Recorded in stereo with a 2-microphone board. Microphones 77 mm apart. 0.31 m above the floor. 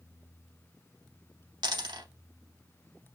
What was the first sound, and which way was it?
A dropped coin, 75° right (ahead or behind).